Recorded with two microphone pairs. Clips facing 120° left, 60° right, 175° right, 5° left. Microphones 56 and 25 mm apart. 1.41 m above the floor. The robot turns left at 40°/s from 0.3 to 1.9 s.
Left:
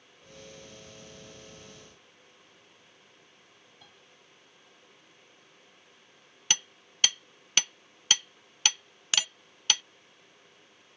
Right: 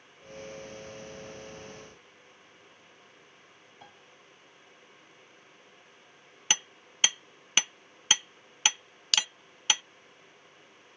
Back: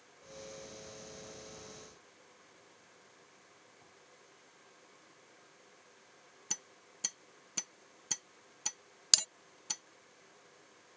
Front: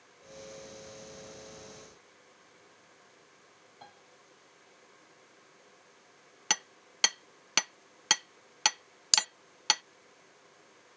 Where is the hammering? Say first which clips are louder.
Right 1 dB, front 12 dB; 15° left.